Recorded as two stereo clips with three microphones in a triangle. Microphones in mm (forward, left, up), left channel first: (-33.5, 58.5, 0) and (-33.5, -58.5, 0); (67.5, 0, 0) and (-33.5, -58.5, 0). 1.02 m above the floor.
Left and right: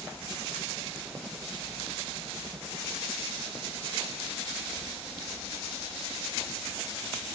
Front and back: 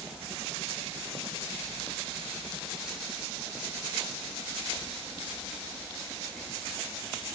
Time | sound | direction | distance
0.0 | a helicopter | 160° right | ?